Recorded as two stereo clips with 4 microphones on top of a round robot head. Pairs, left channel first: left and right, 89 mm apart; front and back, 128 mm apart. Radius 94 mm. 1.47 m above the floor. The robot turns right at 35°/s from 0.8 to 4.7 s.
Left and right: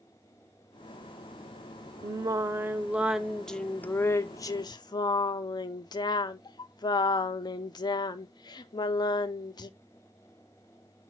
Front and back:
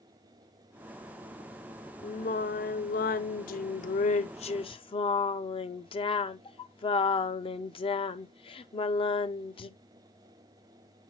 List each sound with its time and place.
2.0 s singing: 45° right, 0.7 m; by 9.7 s 50° left, 0.7 m